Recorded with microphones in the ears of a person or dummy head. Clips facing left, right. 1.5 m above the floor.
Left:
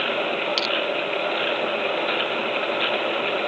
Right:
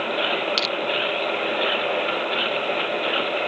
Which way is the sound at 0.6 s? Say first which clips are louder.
Even; 5° left (ahead or behind).